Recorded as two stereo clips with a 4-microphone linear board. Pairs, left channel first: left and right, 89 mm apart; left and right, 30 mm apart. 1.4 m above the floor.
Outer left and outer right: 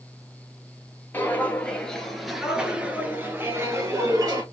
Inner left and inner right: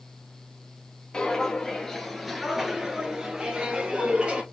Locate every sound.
1.1 s footsteps: 20° left (ahead or behind), 1.6 m; by 4.4 s 40° right (ahead or behind), 1.8 m